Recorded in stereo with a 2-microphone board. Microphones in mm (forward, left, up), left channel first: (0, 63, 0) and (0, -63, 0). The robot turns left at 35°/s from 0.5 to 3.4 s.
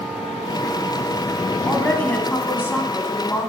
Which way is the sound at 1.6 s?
5° left (ahead or behind).